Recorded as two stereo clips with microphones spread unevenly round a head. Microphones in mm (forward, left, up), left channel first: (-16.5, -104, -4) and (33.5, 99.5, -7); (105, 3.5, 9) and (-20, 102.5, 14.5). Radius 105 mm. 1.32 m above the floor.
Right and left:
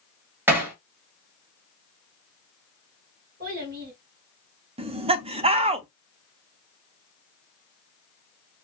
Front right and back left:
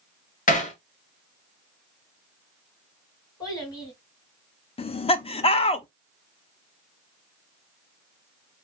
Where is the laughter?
15° left, 0.5 m.